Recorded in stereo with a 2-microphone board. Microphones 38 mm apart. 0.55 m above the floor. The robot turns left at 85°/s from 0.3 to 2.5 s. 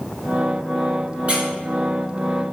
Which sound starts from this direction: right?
A squeak, at 1.3 s.